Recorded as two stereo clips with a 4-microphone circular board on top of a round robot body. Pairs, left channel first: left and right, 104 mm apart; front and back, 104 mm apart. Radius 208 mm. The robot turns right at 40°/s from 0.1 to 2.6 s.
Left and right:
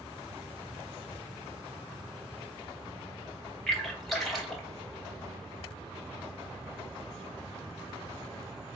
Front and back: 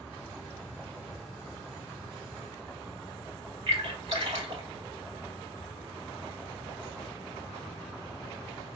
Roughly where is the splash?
Behind.